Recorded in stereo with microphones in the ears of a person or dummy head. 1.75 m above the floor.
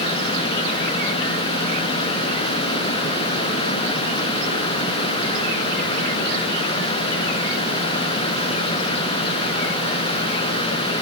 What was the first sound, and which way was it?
Only background noise.